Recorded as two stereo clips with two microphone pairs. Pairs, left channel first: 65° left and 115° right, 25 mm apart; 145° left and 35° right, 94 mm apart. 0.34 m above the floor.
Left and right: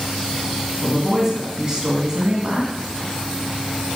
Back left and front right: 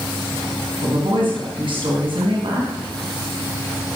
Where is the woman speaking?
55° right, 2.5 m.